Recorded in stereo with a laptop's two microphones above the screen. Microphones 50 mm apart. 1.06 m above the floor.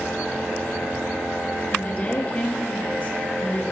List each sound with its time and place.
1.7 s a woman speaking: 30° left (ahead or behind), 2.0 m